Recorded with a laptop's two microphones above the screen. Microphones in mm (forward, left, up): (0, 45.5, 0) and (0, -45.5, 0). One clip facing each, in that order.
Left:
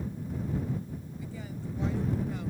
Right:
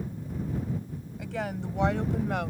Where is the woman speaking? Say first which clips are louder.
Right 12 dB; 80° right.